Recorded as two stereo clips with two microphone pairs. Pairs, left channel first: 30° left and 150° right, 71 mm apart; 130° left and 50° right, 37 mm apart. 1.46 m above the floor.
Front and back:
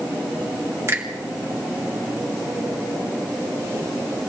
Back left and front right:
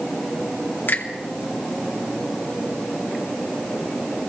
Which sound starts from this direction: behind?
A finger snap, at 0.9 s.